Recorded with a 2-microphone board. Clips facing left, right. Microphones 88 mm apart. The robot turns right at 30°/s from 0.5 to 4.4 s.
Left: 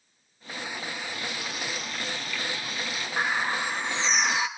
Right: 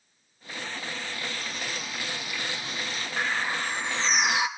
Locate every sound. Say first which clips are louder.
1.1 s frying: left 1 dB; 160° left, 4.5 m; by 3.1 s 140° right, 4.5 m
3.2 s a bird: left 2 dB; 155° left, 1.7 m; by 4.5 s 165° right, 1.7 m